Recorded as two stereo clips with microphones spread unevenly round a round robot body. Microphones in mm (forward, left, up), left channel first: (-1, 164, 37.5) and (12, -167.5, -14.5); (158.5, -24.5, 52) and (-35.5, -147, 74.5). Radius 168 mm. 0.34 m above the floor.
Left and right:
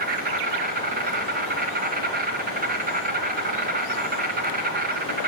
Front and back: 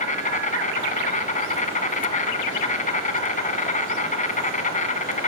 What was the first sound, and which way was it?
An insect, 25° right.